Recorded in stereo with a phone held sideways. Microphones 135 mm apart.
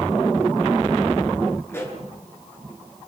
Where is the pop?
20° left (ahead or behind), 8 m.